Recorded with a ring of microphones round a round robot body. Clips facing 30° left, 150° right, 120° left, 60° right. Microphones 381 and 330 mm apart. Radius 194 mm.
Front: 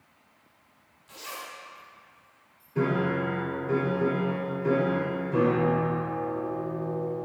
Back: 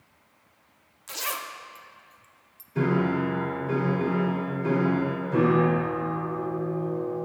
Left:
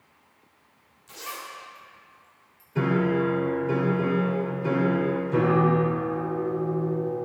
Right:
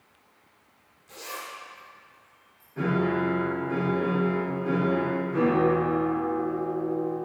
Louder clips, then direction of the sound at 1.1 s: Back 5 dB, right 1 dB; 170° right.